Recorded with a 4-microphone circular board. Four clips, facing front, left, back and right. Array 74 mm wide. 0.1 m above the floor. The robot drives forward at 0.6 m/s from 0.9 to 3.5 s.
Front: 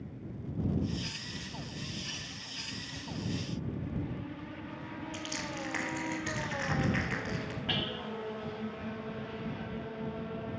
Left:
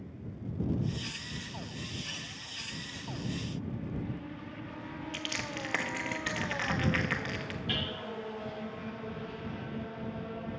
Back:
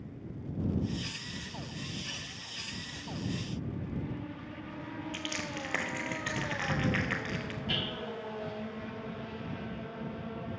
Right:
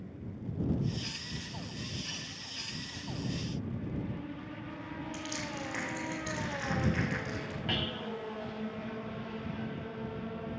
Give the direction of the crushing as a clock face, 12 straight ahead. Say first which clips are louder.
Left 3 dB, back 1 dB; 8 o'clock.